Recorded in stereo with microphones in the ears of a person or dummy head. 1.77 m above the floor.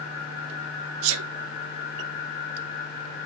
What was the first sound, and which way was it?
A sneeze, 80° right.